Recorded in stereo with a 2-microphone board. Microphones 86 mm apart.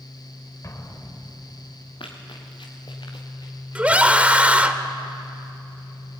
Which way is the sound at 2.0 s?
80° left.